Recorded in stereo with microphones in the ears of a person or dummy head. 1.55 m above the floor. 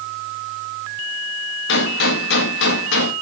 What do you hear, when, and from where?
1.7 s a gunshot: 65° left (ahead or behind), 1.6 m